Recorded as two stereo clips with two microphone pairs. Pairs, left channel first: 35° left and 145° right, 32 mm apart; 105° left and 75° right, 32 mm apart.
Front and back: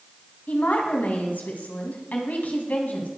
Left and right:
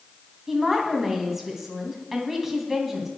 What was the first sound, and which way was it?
A woman speaking, 5° left.